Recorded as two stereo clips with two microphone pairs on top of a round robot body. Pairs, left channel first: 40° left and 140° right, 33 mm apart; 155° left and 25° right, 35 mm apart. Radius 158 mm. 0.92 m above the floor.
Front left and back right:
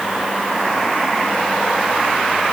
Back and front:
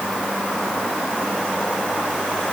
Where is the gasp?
No gasp in this recording.